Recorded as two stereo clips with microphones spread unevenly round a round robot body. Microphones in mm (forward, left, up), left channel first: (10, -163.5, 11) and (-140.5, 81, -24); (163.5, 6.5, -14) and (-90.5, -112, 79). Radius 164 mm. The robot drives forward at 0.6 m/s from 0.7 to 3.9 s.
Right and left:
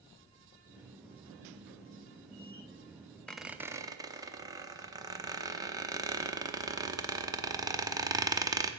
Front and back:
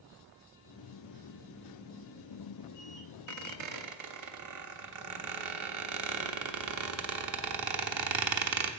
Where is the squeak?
140° right, 0.5 m; by 8.7 s 160° right, 0.8 m.